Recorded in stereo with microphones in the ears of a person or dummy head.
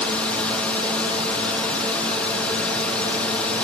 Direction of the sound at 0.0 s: 5° left (ahead or behind).